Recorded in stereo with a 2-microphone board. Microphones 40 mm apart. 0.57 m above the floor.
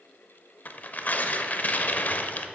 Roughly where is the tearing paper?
Left.